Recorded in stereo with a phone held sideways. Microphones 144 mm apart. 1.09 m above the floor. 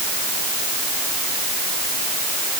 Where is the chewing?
I don't hear chewing.